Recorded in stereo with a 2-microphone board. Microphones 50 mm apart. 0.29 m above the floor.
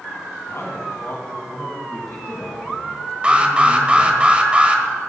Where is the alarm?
20° right (ahead or behind), 1.1 m.